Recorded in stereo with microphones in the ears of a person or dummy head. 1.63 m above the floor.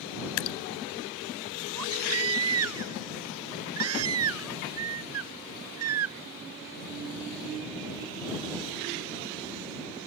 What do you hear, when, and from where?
0.4 s dripping: 75° left (ahead or behind)
1.7 s a baby crying: 75° right (ahead or behind)